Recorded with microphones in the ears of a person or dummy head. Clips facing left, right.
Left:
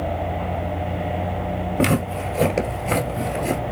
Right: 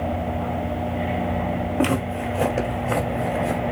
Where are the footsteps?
30° left (ahead or behind), 2 m; by 3.6 s 35° left (ahead or behind), 2 m.